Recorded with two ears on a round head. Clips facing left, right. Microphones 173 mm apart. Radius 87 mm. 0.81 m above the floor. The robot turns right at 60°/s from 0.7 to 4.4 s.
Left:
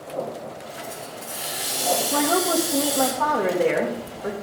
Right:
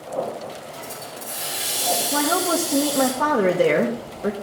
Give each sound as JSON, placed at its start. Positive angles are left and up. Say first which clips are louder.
{"t": 0.7, "sound": "a hiss", "louder": "even", "azimuth_deg": -95, "distance_m": 3.5}
{"t": 2.1, "sound": "a woman speaking", "louder": "even", "azimuth_deg": 170, "distance_m": 1.0}